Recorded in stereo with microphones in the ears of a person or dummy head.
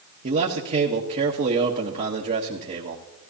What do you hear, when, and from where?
0.2 s a man speaking: 45° right (ahead or behind), 1.2 m